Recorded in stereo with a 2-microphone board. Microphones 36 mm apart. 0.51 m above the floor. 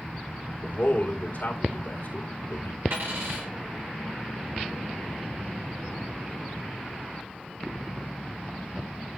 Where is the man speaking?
55° left (ahead or behind), 2 m.